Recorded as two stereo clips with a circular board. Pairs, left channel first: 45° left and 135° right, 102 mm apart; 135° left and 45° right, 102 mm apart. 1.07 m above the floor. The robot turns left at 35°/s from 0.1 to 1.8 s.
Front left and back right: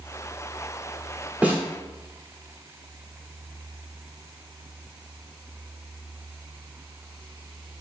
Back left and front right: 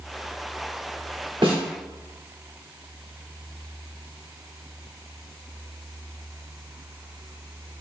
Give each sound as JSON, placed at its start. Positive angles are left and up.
{"t": 1.4, "sound": "a snare drum", "azimuth_deg": -65, "distance_m": 1.0}